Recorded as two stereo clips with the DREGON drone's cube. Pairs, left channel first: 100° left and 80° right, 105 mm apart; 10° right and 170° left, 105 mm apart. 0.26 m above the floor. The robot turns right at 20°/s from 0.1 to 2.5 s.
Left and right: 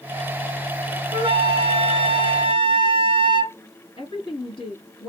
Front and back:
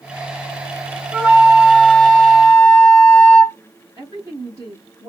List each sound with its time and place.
1.1 s a flute: 110° right, 1.1 m; by 3.5 s 85° right, 1.1 m
4.0 s a woman speaking: 115° left, 1.8 m